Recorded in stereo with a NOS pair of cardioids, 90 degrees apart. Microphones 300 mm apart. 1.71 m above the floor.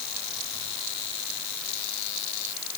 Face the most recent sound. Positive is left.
No sound to turn to.